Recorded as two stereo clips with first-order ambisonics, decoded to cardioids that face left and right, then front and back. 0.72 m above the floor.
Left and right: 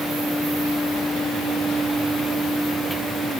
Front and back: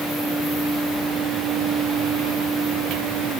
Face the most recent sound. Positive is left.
No sound to turn to.